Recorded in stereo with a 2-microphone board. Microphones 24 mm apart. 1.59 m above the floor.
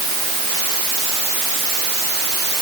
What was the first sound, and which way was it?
Only background noise.